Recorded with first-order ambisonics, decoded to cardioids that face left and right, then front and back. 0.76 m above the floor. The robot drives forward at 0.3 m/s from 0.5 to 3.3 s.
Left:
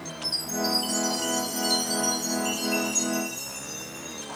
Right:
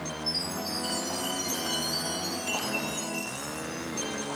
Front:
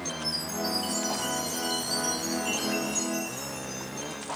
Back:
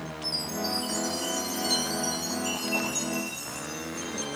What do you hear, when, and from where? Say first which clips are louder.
0.2 s a chime: left 5 dB, back 2 dB; 105° left, 5.5 m; by 4.3 s 115° left, 6 m